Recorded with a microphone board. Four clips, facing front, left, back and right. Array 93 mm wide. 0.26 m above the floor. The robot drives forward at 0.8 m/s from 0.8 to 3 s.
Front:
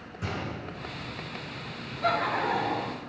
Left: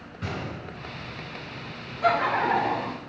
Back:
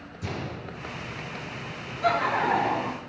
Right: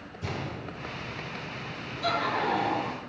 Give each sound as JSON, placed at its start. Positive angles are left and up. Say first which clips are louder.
{"t": 0.2, "sound": "a gunshot", "louder": "left 2 dB, even", "azimuth_deg": 55, "distance_m": 3.5}
{"t": 2.0, "sound": "laughter", "louder": "left 5 dB, back 3 dB", "azimuth_deg": 105, "distance_m": 1.1}